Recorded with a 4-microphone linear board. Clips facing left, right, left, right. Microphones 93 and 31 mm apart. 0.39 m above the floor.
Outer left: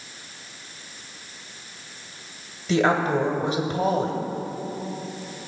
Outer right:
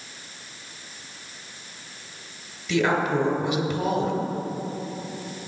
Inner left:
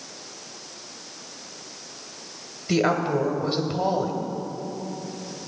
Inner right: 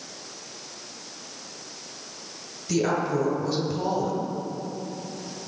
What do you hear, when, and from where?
2.7 s a woman speaking: 35° left (ahead or behind), 1.5 m